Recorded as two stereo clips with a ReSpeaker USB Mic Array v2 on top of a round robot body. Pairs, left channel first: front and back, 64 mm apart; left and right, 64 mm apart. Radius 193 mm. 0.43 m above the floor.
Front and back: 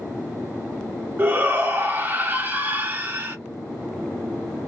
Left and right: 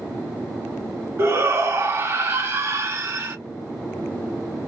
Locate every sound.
1.2 s a shout: 130° right, 1.2 m